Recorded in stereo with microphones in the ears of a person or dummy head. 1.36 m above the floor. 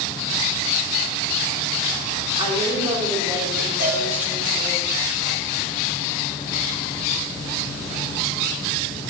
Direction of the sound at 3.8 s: 55° right (ahead or behind).